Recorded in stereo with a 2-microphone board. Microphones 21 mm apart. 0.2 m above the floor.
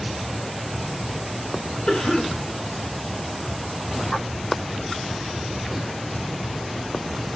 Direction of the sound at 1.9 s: 60° left (ahead or behind).